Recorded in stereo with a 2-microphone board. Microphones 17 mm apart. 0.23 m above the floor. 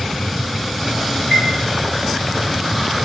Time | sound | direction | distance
1.3 | a chime | 70° left (ahead or behind) | 7 m